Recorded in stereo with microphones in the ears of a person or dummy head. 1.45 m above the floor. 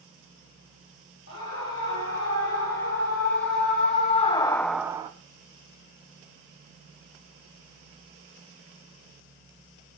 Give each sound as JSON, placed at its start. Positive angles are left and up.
{"t": 1.3, "sound": "a scream", "side_deg": 70, "distance_m": 4.0}